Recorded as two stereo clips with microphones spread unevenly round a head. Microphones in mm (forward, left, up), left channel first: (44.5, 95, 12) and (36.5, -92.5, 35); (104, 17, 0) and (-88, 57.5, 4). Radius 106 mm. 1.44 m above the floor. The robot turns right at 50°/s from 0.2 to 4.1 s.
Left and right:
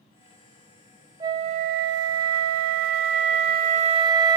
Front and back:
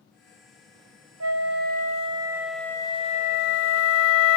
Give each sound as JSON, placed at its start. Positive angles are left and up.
{"t": 1.2, "sound": "a flute", "azimuth_deg": -165, "distance_m": 0.6}